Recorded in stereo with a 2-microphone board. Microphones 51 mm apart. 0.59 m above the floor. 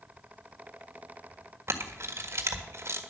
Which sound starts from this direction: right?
A camera shutter, at 1.7 s.